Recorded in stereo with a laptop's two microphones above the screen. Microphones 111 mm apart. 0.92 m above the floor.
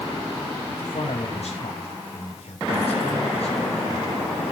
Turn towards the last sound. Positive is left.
turn(degrees=70)  # may be behind; listen again after turning